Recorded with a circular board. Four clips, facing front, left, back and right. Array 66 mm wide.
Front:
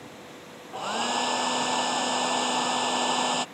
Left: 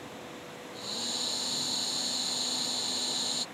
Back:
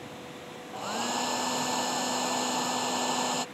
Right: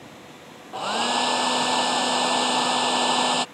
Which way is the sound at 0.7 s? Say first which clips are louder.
Right 18 dB, front 4 dB; 75° right.